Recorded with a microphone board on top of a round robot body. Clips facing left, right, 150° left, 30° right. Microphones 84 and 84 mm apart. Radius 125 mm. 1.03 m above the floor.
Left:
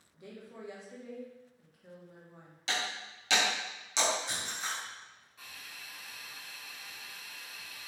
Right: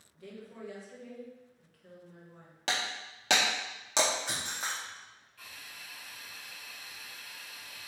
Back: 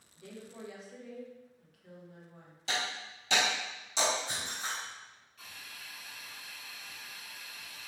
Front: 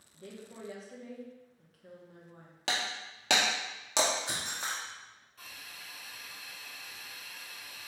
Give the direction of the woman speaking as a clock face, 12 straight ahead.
11 o'clock.